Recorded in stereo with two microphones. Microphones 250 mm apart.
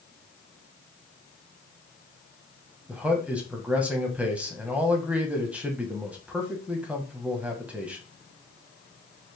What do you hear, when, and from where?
2.9 s a man speaking: 5° right (ahead or behind), 1.0 m